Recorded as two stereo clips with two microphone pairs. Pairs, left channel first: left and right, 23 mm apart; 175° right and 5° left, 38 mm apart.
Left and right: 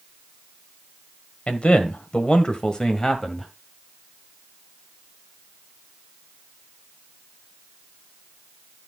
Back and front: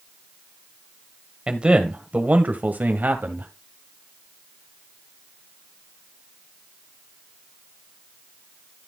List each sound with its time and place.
1.5 s a man speaking: 65° left, 1.6 m; by 3.5 s 20° left, 1.8 m